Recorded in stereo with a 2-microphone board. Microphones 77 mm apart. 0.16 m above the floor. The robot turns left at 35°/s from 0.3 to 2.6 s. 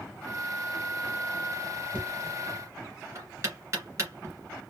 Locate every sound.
1.9 s knocking: 20° right (ahead or behind), 1.9 m; by 4.3 s 35° right (ahead or behind), 1.9 m